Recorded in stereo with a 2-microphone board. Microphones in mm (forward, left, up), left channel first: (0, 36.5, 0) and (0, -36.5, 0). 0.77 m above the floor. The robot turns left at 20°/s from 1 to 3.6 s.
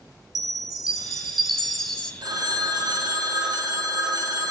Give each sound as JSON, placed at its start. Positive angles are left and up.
{"t": 0.3, "sound": "a chime", "side_deg": -5, "distance_m": 0.9}
{"t": 2.2, "sound": "a phone ringing", "side_deg": -70, "distance_m": 1.2}